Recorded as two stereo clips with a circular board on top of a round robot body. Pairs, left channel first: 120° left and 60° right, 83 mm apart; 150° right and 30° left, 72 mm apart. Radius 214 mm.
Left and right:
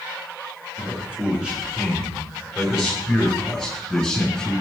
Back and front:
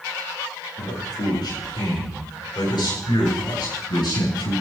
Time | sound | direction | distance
0.8 | a man speaking | 135° right | 7.5 m